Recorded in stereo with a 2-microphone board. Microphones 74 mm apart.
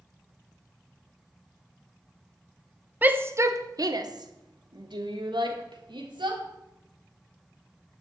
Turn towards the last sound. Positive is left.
turn(degrees=-85)